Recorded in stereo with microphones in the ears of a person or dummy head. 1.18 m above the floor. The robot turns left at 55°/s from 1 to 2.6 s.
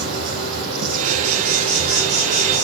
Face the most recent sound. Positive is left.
turn(degrees=170)